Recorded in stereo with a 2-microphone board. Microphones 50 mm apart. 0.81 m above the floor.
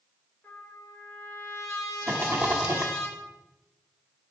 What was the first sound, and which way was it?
A trumpet, 40° left (ahead or behind).